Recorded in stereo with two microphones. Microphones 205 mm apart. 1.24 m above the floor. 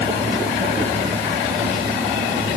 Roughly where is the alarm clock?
I don't hear an alarm clock.